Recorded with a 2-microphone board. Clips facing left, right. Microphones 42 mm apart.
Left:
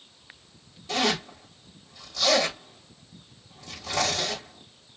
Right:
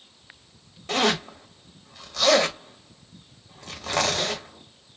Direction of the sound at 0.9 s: 65° right (ahead or behind).